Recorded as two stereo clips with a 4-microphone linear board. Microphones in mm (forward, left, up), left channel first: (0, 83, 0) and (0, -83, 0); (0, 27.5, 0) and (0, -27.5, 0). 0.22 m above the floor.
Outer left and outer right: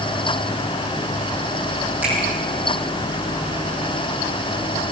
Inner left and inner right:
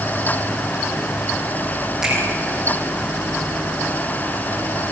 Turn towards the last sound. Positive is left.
turn(degrees=-10)  # may be behind; listen again after turning